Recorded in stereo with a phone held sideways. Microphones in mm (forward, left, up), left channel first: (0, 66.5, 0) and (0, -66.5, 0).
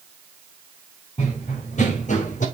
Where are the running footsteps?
60° left (ahead or behind), 4.5 m; by 2.5 s 65° left (ahead or behind), 3.5 m.